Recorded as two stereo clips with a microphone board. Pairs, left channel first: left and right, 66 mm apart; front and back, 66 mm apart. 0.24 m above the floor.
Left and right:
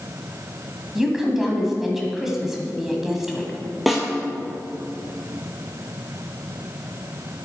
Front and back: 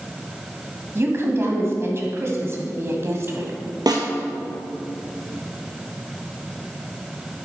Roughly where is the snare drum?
Behind.